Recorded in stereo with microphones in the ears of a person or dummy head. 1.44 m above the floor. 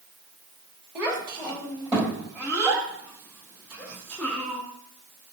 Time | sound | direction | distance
0.9 | a child speaking | 5° right (ahead or behind) | 2.5 m